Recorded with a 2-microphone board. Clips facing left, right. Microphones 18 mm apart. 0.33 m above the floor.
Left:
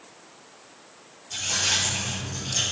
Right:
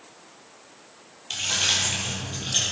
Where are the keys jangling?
80° right, 5.5 m; by 2.6 s 85° right, 7 m.